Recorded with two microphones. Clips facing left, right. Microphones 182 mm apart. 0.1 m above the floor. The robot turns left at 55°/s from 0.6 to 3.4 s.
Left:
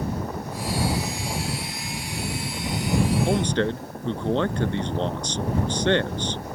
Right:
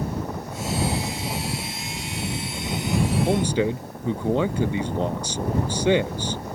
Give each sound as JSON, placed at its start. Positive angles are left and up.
{"t": 3.3, "sound": "a man speaking", "side_deg": -5}